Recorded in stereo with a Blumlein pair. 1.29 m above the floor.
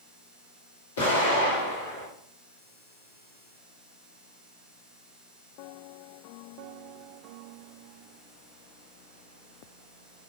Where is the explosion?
65° left, 1.9 m.